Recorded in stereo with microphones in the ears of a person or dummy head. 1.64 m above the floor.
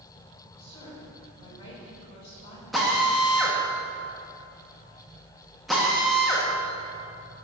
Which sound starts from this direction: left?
A woman speaking, at 0.6 s.